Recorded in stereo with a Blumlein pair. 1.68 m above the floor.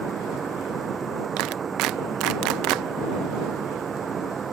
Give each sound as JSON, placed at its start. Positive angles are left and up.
{"t": 0.0, "sound": "a fan", "azimuth_deg": -20}
{"t": 1.4, "sound": "a clap", "azimuth_deg": -40}